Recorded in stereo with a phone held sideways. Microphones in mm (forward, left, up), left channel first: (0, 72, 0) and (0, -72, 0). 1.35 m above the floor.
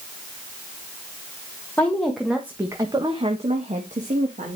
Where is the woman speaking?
10° left (ahead or behind), 1.5 m; by 4.6 s 75° right (ahead or behind), 2.0 m.